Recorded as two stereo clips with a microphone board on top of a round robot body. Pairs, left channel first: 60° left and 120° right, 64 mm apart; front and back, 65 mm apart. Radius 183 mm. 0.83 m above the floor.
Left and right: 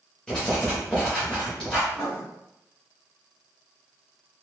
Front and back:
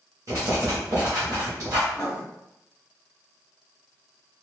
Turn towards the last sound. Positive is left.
turn(degrees=80)